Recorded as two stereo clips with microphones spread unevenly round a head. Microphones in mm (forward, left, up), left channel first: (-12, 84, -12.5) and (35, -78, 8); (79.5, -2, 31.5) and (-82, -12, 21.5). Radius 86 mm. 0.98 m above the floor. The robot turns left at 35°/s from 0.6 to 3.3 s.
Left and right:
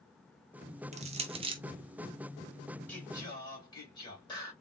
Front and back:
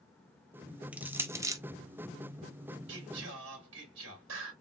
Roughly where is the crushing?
Right.